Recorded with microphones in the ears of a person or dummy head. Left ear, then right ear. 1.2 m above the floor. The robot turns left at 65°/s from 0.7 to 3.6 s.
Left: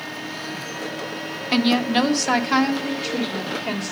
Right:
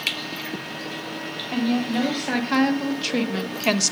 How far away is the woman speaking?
About 0.9 m.